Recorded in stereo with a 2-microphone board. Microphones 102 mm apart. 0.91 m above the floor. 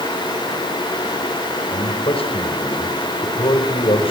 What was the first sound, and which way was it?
A man speaking, 60° left (ahead or behind).